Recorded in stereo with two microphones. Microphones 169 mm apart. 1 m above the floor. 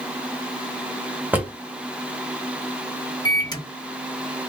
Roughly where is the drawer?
Centre.